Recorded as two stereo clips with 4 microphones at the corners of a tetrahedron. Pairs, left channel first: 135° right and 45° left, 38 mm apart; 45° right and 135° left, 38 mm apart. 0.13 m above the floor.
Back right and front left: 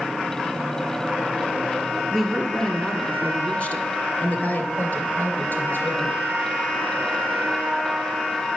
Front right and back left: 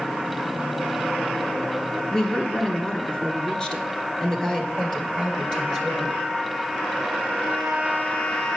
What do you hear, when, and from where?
2.1 s a woman speaking: 55° right, 1.1 m; by 6.2 s 125° right, 2.5 m